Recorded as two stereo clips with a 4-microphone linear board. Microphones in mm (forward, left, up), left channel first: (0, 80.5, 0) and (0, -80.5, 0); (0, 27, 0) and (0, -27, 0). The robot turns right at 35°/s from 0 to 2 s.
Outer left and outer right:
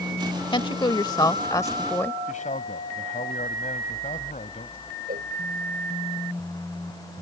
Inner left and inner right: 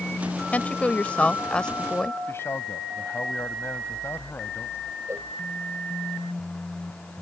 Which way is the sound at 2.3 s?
50° left (ahead or behind).